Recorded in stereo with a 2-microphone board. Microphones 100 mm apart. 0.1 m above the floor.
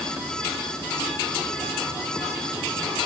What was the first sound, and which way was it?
Only background noise.